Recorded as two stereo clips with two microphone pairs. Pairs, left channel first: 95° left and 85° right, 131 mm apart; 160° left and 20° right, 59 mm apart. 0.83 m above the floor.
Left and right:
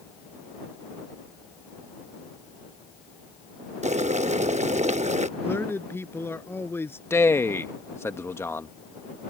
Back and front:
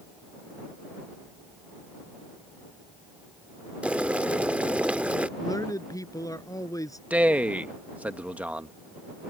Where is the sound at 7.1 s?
35° left.